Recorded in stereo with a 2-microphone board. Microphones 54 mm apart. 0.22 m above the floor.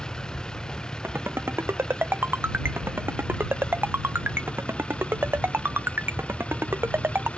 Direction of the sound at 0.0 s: 15° left (ahead or behind).